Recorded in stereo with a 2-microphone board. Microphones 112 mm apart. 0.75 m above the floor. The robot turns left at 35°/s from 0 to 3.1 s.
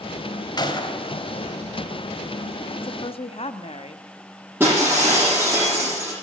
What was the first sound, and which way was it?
A gunshot, 40° left (ahead or behind).